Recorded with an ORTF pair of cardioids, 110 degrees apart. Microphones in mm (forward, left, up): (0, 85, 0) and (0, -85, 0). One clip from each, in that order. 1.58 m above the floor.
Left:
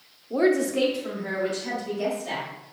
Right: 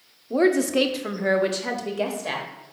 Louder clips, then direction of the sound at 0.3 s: Right 2 dB; 15° right.